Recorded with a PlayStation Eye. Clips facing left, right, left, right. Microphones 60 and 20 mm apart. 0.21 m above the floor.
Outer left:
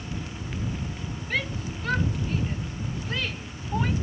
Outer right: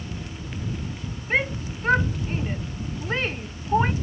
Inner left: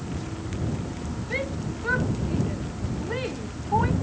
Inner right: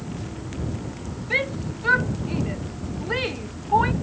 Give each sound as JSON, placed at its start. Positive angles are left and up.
{"t": 1.3, "sound": "a shout", "side_deg": -30}